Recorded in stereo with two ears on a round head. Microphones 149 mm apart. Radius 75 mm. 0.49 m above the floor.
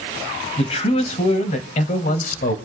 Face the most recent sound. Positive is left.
turn(degrees=55)  # may be behind; listen again after turning